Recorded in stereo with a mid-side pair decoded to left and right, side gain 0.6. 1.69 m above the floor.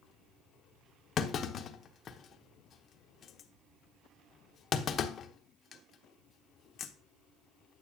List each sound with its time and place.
1.2 s a clunk: 40° left, 1.0 m